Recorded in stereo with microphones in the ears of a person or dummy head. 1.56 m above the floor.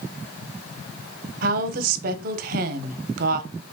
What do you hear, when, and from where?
1.4 s a woman speaking: 50° right (ahead or behind), 0.6 m